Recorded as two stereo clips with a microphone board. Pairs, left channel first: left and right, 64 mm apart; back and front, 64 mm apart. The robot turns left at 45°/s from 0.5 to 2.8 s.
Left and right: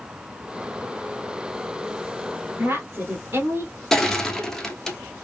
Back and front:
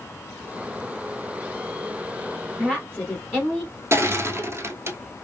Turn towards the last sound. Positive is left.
turn(degrees=10)